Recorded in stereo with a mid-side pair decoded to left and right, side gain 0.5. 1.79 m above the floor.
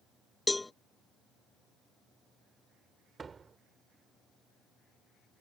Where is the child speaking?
No child speaking in this recording.